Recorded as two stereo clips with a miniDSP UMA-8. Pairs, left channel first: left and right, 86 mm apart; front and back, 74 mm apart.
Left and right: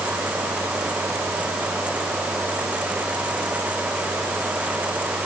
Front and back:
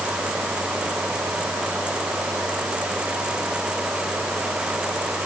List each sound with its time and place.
Only background noise.